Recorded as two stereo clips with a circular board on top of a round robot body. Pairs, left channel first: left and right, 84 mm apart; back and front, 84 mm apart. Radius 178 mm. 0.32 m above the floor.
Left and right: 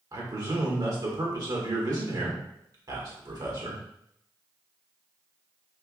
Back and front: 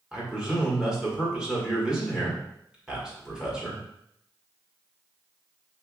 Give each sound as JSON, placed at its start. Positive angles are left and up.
{"t": 0.1, "sound": "a man speaking", "azimuth_deg": -80, "distance_m": 1.8}